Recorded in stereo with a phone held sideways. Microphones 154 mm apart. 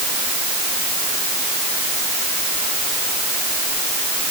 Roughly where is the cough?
No cough in this recording.